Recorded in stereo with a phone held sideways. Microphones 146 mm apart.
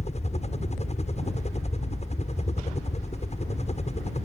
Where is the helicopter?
50° left (ahead or behind).